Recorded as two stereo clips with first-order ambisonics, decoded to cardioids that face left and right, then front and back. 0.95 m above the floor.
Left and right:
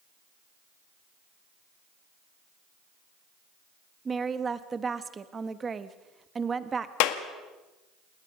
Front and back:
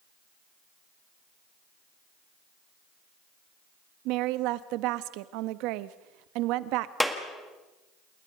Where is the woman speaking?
160° right, 1.0 m.